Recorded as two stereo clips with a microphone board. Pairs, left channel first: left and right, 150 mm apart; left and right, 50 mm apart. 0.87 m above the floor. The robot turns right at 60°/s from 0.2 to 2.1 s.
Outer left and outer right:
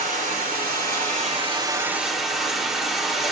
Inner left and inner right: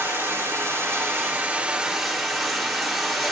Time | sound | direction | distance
0.0 | running water | 115° right | 3 m